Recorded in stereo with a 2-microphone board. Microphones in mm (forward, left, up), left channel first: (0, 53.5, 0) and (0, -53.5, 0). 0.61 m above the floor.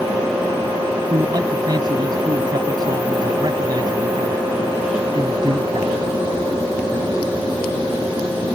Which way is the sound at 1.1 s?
40° right (ahead or behind).